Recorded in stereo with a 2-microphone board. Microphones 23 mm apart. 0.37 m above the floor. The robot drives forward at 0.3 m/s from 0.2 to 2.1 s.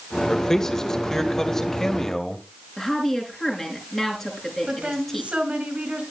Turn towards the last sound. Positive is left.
turn(degrees=-75)  # may be behind; listen again after turning